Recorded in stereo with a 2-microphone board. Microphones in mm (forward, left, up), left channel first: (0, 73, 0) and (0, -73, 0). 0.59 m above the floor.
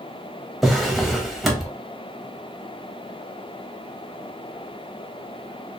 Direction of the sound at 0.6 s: Centre (ahead or behind).